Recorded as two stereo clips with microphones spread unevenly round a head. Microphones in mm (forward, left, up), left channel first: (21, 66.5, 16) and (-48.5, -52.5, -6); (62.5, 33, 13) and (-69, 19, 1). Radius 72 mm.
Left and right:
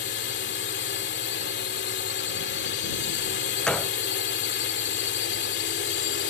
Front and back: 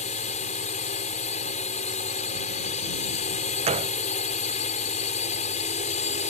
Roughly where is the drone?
Ahead left.